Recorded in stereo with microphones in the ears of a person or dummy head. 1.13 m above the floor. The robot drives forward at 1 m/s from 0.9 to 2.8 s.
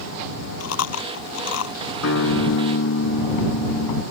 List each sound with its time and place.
0.6 s chewing: 85° left; by 1.8 s 80° left
2.0 s a guitar: 85° left